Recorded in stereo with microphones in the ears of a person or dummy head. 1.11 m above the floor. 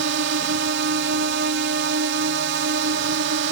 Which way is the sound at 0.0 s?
65° right (ahead or behind).